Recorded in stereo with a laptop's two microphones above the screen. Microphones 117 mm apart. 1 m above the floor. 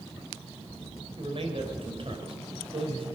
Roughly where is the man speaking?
Right.